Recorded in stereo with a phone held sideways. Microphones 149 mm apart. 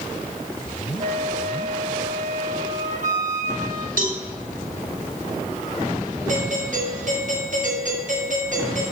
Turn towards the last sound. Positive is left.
turn(degrees=-60)  # may be behind; listen again after turning